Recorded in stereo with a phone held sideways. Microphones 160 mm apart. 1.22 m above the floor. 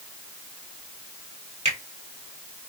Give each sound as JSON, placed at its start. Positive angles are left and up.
{"t": 1.6, "sound": "a finger snap", "side_deg": -45, "distance_m": 1.6}